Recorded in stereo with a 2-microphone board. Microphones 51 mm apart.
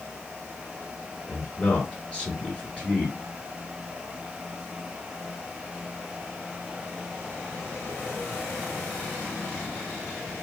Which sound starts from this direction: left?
A man speaking, at 1.3 s.